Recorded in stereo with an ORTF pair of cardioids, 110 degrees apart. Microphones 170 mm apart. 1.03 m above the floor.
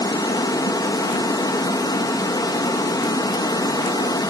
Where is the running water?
20° left, 1.0 m.